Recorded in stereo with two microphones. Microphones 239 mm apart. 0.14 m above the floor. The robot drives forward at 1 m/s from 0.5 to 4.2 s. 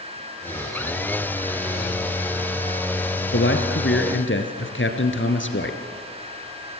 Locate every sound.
3.3 s a man speaking: 50° left (ahead or behind), 2 m; by 5.8 s 55° left (ahead or behind), 2 m